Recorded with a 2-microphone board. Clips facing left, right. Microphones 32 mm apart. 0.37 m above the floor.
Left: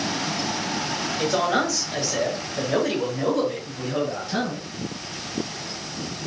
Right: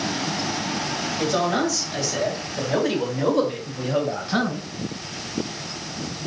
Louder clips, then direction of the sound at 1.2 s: Even; 30° left (ahead or behind).